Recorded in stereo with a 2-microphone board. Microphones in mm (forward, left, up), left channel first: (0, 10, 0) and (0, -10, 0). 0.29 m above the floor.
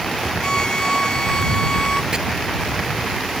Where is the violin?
35° left (ahead or behind).